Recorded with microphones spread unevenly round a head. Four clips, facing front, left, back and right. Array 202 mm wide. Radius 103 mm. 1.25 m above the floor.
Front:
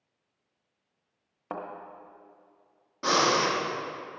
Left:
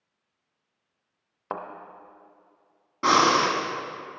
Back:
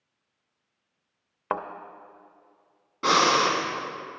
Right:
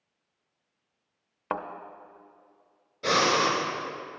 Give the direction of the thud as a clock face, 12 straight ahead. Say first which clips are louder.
Right 2 dB, back 7 dB; 6 o'clock.